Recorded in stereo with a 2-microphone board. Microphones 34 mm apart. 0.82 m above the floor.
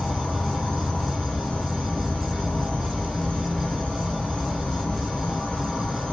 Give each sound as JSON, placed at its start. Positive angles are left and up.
{"t": 0.0, "sound": "an insect", "side_deg": 30, "distance_m": 1.0}